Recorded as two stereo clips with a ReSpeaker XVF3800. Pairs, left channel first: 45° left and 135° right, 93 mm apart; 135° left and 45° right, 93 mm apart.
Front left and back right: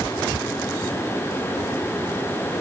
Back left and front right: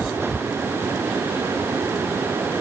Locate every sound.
Only background noise.